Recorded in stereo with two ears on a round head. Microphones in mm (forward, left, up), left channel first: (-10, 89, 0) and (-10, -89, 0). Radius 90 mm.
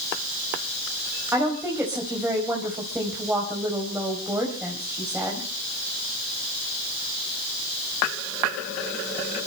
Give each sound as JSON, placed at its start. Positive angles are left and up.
{"t": 1.3, "sound": "a woman speaking", "side_deg": -10, "distance_m": 4.0}